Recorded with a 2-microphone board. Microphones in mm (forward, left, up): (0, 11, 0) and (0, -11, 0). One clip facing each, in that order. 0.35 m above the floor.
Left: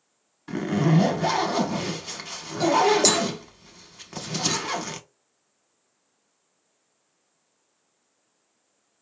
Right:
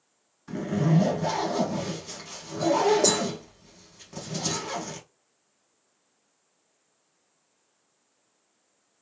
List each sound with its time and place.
0.5 s a zipper: 40° left (ahead or behind), 0.6 m